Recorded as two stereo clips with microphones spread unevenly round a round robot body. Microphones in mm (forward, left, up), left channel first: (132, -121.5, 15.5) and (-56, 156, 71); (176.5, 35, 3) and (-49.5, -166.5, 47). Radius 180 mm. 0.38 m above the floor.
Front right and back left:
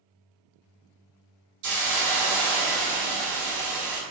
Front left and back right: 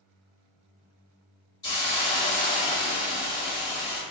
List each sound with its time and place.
1.6 s a hiss: 110° left, 0.8 m